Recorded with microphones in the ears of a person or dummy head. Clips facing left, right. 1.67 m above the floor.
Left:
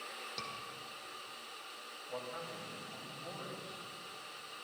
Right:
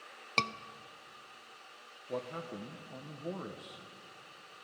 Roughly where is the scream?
Right.